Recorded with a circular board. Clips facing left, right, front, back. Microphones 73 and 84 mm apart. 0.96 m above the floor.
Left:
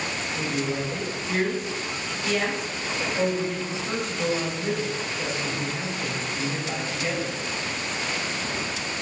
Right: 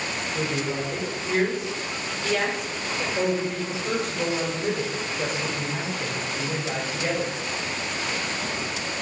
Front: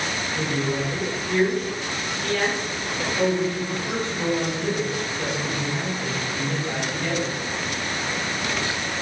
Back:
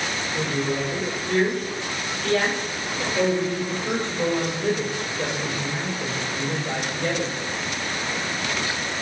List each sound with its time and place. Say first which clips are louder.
0.3 s a woman speaking: even, even; 120° right, 3.5 m